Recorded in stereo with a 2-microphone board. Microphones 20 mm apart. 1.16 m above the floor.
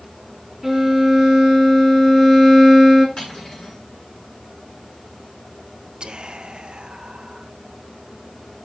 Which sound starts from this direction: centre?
A violin, at 0.6 s.